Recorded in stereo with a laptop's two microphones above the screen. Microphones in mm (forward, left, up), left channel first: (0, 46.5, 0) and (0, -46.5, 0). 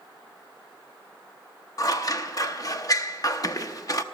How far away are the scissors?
About 0.6 m.